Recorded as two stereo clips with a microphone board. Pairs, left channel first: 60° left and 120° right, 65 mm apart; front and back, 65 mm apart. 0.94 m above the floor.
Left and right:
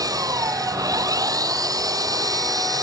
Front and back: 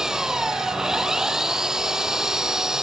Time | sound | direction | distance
0.0 | an engine running | 100° right | ?